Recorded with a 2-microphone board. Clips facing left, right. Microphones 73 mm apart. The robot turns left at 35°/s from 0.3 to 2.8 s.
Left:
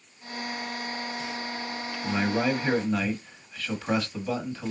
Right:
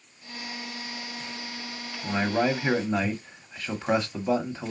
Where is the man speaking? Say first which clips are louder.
Right 1 dB; 20° right (ahead or behind), 1.1 m.